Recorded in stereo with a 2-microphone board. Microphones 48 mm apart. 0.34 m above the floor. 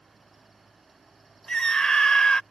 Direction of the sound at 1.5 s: 15° left (ahead or behind).